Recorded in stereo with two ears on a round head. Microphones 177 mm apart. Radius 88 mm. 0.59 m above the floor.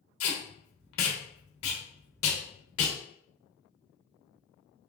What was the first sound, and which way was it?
Tape being pulled, 80° left.